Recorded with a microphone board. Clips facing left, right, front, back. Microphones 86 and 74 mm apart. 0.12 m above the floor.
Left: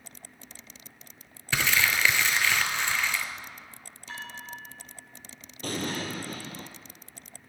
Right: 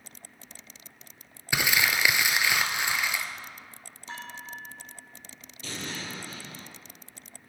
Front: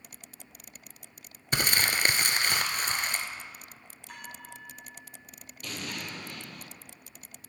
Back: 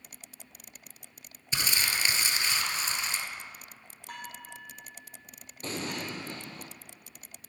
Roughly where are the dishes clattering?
Behind right.